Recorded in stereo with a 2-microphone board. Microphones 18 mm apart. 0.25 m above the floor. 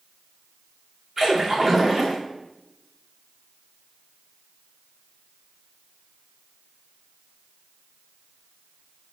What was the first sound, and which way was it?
A splash, 25° right (ahead or behind).